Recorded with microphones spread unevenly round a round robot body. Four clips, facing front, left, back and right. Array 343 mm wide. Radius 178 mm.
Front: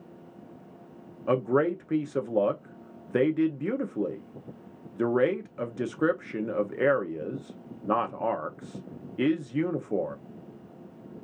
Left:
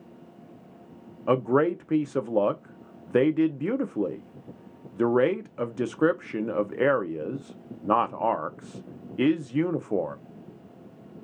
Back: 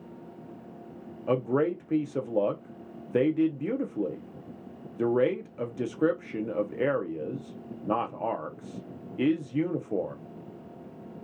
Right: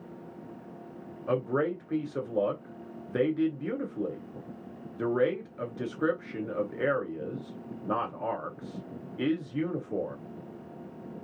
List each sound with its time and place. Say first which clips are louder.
1.3 s a man speaking: left 6 dB, front 1 dB; 80° left, 0.7 m